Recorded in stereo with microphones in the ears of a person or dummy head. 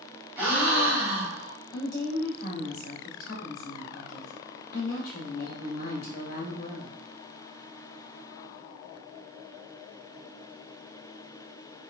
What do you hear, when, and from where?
0.4 s a gasp: 15° right (ahead or behind), 1.1 m
1.7 s a woman speaking: 55° left (ahead or behind), 0.7 m